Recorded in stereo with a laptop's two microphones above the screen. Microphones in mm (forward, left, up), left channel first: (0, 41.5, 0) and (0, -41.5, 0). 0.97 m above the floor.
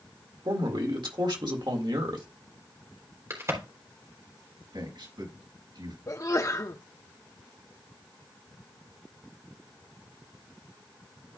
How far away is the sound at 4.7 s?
About 6.5 m.